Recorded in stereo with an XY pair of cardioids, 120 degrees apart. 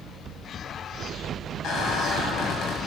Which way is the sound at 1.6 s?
60° left.